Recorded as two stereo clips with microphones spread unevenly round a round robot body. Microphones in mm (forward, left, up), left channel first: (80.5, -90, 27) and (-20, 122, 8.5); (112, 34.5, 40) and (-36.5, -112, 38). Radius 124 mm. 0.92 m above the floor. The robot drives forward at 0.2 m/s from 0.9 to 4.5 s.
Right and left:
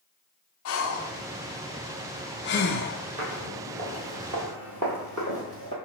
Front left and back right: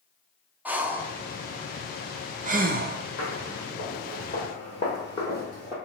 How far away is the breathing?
About 0.6 m.